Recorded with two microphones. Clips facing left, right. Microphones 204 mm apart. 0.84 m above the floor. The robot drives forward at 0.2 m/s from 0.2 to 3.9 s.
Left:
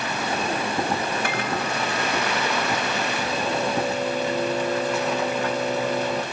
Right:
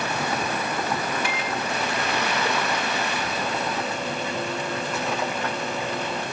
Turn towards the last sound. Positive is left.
turn(degrees=40)  # may be behind; listen again after turning